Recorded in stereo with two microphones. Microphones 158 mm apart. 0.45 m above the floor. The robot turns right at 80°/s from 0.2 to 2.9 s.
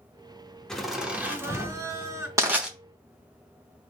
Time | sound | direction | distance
0.7 | laughter | 5° left (ahead or behind) | 1.0 m
2.4 | crushing | 20° right (ahead or behind) | 1.0 m